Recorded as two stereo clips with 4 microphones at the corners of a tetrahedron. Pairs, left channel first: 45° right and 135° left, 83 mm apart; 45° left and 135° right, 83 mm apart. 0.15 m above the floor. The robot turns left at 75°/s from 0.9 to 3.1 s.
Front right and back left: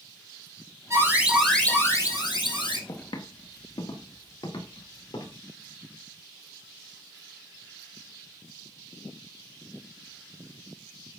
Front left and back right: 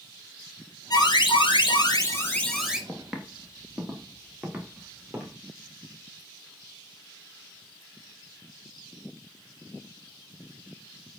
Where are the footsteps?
30° right, 3 m; by 5.3 s 60° right, 6.5 m.